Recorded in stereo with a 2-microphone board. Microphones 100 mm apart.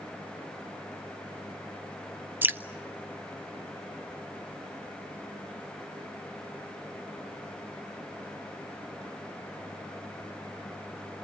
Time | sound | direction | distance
2.4 | dripping | 20° right (ahead or behind) | 0.6 m